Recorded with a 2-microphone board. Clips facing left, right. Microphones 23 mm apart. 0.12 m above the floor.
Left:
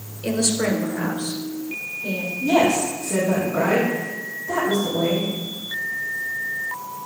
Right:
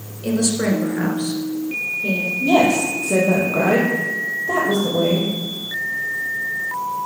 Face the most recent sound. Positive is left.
turn(degrees=-65)  # may be behind; listen again after turning